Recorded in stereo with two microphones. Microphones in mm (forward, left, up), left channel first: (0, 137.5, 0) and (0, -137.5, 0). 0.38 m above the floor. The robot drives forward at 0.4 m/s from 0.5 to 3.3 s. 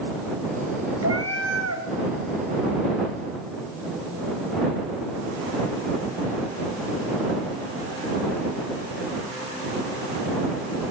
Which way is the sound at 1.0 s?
65° right (ahead or behind).